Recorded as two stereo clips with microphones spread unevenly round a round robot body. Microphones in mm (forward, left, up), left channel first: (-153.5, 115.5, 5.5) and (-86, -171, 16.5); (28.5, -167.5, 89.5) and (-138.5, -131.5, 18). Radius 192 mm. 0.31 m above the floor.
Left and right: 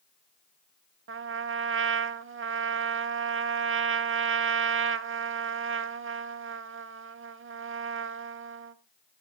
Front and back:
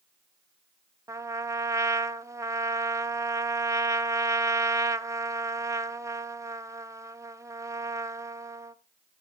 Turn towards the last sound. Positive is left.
turn(degrees=-125)